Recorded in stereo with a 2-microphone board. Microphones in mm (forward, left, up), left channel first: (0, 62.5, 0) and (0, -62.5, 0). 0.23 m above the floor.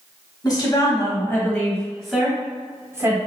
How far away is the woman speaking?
About 1.4 m.